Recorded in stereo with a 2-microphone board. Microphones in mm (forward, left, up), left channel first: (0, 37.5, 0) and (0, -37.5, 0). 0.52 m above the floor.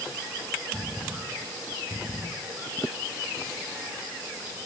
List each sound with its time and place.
Only background noise.